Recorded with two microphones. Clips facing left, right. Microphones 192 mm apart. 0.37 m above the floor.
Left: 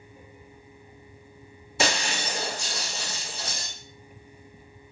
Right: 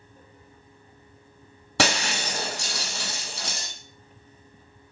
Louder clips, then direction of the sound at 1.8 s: Right 2 dB; 80° right.